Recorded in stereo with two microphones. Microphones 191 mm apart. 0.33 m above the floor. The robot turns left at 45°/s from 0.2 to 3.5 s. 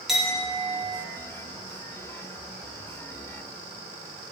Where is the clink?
Straight behind, 1.5 m; by 1.0 s 145° left, 1.5 m.